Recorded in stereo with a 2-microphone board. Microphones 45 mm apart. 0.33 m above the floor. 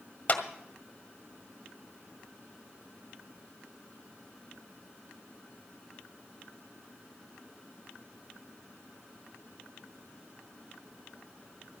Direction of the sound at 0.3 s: 35° left (ahead or behind).